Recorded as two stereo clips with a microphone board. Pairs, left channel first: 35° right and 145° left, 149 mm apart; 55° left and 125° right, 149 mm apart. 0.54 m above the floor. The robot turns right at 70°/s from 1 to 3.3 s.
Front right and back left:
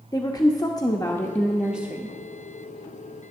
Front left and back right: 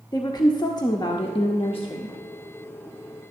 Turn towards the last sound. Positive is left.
turn(degrees=175)